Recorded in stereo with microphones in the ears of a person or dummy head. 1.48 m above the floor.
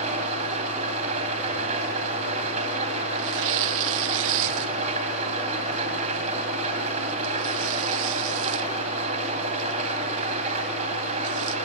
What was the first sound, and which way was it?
An engine running, 35° right (ahead or behind).